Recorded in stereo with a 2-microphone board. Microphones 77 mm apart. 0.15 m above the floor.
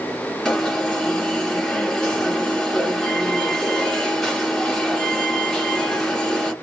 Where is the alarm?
10° left (ahead or behind), 1.6 m.